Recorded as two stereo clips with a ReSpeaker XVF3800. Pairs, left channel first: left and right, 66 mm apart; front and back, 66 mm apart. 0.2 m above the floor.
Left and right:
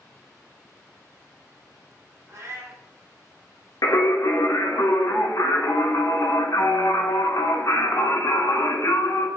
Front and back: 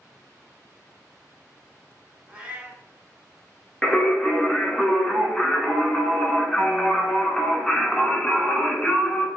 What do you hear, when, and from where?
2.3 s a cat meowing: 115° right, 0.9 m
3.8 s singing: 85° left, 0.7 m